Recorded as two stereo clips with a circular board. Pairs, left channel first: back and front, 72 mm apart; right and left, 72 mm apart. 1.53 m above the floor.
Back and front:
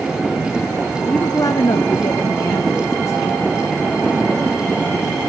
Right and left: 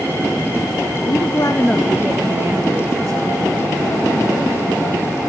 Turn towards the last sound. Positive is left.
turn(degrees=120)